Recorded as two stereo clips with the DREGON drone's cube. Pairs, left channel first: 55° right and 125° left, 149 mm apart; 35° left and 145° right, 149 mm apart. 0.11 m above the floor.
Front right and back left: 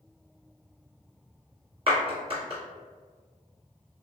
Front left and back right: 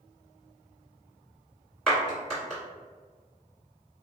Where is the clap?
120° left, 1.7 m.